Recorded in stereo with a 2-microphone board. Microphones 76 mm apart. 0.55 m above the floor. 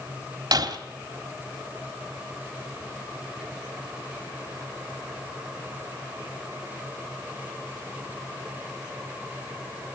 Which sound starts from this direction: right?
Breaking glass, at 0.5 s.